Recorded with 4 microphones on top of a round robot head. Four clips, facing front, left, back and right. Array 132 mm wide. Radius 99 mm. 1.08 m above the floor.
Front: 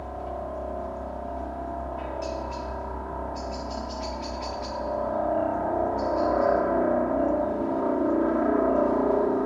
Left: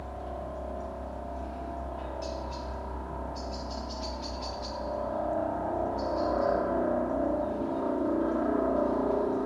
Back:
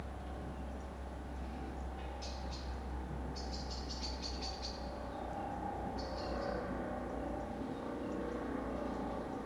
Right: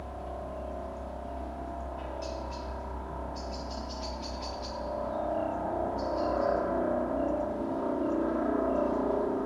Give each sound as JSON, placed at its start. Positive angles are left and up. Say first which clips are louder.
{"t": 0.0, "sound": "a helicopter", "louder": "left 1 dB, front 14 dB", "azimuth_deg": 5}